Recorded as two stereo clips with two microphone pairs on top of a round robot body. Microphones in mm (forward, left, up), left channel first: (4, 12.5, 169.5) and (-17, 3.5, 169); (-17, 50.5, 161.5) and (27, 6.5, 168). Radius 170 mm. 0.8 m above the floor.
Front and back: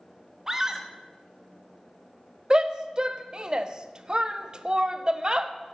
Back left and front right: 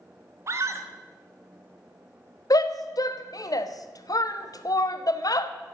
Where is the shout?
150° left, 1.1 m.